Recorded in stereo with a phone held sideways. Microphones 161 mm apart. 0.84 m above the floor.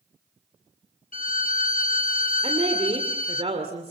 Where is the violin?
50° left (ahead or behind), 0.5 m.